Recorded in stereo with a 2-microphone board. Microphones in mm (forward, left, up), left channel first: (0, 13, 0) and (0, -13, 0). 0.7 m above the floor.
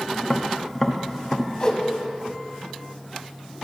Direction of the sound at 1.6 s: 25° left (ahead or behind).